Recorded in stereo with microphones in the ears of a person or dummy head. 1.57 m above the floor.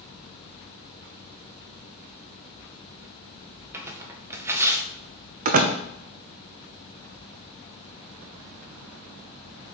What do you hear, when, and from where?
3.7 s tearing paper: 10° right (ahead or behind), 1.2 m
5.5 s a door slam: 40° right (ahead or behind), 0.8 m